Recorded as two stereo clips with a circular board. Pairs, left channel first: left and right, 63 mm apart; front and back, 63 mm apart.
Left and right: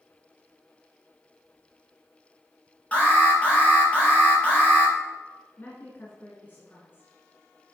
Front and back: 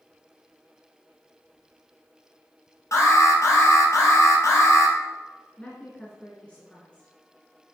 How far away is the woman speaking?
About 1.8 m.